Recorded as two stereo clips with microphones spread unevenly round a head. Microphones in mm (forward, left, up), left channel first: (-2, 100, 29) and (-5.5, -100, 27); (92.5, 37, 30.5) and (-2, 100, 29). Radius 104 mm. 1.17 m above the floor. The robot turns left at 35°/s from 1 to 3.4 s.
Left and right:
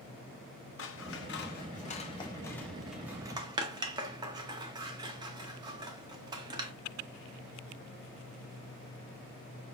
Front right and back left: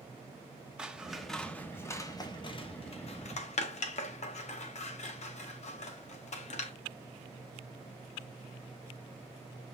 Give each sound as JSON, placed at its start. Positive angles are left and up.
{"t": 0.8, "sound": "scissors", "azimuth_deg": 65, "distance_m": 0.7}